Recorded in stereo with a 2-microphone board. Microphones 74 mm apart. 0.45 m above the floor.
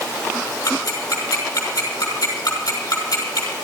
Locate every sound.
0.7 s ticking: 50° left (ahead or behind), 6.5 m